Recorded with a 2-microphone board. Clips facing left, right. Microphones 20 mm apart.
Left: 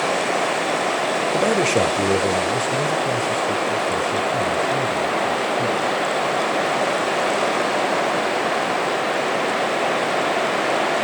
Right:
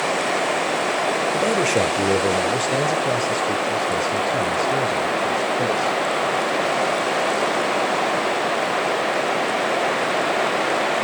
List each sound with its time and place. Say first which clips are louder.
1.3 s a man speaking: left 2 dB; 20° left (ahead or behind), 0.8 m; by 6.0 s 55° right (ahead or behind), 3 m